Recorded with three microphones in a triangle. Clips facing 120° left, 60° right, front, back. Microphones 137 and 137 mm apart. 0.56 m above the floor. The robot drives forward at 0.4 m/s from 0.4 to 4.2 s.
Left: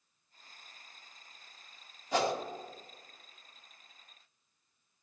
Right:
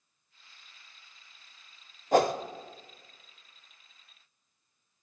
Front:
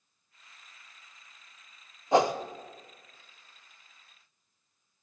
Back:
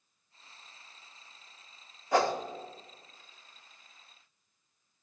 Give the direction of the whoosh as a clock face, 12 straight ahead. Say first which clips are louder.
Right 7 dB, front 3 dB; 2 o'clock.